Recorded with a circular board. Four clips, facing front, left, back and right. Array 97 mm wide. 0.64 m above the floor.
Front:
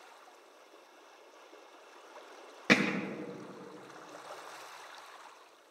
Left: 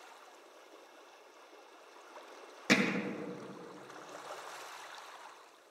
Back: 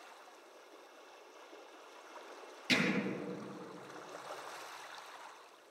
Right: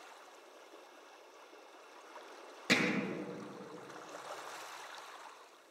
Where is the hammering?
10° left, 1.1 m.